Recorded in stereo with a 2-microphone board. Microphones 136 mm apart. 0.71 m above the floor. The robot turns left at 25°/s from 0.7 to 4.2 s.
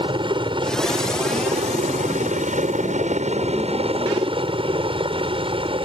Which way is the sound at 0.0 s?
45° right.